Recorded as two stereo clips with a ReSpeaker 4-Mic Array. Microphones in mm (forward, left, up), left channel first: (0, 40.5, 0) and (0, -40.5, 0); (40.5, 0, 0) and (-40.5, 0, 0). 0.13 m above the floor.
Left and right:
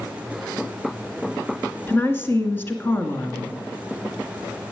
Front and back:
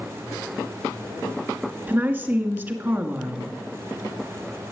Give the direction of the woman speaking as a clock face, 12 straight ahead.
8 o'clock.